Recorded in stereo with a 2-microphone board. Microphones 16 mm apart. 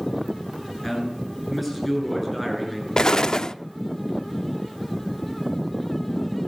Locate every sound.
0.8 s a man speaking: 10° left (ahead or behind), 9 m; by 2.9 s centre (ahead or behind), 9 m
3.0 s an explosion: 50° left (ahead or behind), 0.6 m